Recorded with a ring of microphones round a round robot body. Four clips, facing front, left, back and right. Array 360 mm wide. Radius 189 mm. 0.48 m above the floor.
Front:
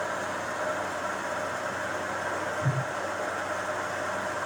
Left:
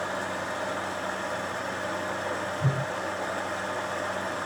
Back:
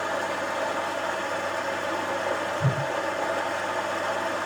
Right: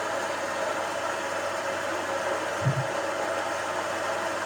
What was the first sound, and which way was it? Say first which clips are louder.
Running water: right 2 dB, back 4 dB; 175° right.